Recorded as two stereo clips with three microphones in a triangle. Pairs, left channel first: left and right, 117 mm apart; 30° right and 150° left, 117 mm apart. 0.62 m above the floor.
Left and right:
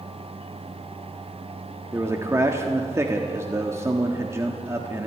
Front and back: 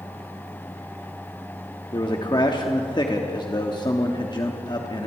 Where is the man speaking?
40° right, 1.3 m.